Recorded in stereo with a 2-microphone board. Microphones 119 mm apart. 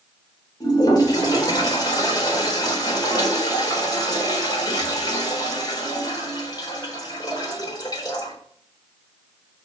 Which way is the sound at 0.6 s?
35° left (ahead or behind).